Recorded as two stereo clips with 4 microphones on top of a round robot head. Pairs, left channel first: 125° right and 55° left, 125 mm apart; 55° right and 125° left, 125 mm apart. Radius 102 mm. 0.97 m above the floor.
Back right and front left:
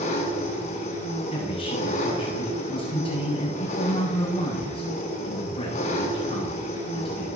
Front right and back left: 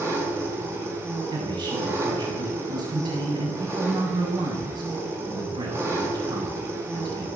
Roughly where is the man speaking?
Behind.